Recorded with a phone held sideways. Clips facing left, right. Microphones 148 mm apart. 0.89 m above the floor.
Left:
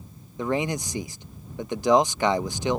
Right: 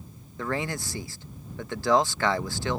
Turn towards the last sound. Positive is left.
turn(degrees=15)  # may be behind; listen again after turning